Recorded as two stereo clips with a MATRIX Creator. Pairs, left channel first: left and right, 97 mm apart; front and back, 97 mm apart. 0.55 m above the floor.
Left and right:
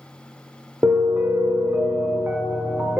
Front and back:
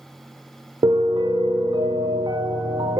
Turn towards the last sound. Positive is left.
turn(degrees=-155)